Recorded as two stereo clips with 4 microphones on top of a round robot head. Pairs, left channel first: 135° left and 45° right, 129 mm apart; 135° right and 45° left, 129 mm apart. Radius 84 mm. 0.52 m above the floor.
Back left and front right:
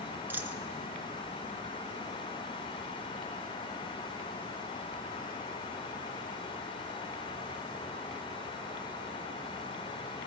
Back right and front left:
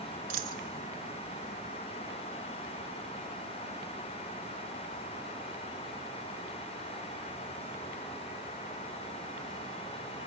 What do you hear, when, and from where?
0.3 s a dropped coin: 30° left, 1.0 m